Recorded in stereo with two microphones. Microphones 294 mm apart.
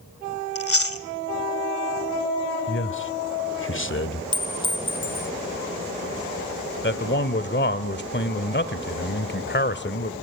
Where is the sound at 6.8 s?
40° left (ahead or behind), 1.3 m.